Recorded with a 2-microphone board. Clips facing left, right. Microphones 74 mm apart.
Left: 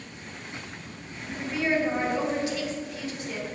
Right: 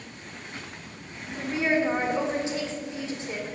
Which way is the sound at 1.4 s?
25° right (ahead or behind).